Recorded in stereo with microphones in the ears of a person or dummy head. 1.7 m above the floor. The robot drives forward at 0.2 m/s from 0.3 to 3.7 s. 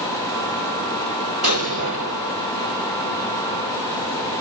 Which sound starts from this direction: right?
An explosion, at 1.4 s.